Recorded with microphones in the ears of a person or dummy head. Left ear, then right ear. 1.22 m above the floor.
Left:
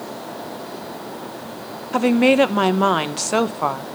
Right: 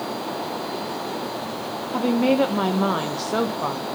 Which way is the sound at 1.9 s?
50° left (ahead or behind).